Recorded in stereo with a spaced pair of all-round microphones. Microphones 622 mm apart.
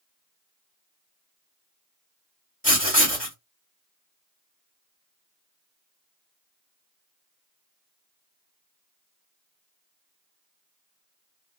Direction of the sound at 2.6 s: 15° left (ahead or behind).